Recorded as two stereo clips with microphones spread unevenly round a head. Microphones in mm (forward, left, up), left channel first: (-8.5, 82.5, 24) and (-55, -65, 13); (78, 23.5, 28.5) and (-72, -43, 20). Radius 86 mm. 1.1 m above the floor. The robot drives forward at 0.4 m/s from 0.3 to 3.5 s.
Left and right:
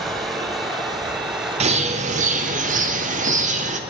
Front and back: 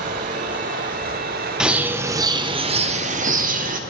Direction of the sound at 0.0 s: 160° left.